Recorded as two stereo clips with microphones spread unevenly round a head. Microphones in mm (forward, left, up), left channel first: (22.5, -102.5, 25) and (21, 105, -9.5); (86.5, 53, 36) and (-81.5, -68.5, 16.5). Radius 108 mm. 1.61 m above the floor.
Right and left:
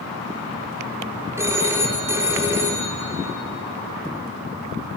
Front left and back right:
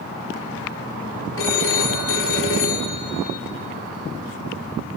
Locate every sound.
1.4 s a phone ringing: 10° left, 3 m